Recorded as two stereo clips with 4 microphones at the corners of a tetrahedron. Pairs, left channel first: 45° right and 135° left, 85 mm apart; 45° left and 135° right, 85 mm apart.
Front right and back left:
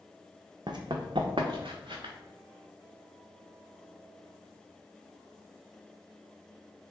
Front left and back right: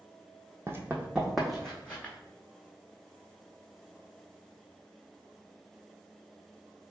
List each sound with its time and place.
0.7 s running footsteps: 165° left, 0.7 m; by 2.1 s 120° left, 1.1 m